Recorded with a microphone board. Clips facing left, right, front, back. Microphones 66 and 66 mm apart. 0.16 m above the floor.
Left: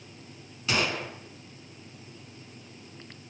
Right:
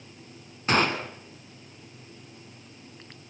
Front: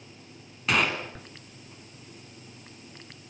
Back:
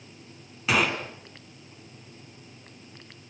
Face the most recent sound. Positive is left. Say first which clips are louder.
# right 5 dB, back 1 dB
turn(degrees=-95)